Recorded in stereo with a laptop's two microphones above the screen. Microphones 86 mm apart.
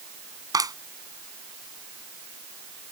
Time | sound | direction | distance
0.5 | a clap | 45° right (ahead or behind) | ?